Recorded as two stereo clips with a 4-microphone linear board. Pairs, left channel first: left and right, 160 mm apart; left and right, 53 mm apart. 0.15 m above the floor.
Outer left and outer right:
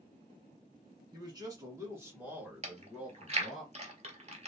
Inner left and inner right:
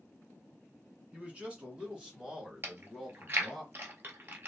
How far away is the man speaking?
About 1.7 m.